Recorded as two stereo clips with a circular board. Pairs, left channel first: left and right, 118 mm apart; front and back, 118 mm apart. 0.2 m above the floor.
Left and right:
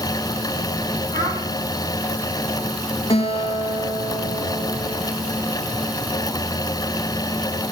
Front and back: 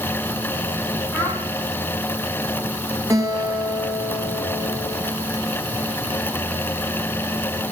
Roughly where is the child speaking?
Right.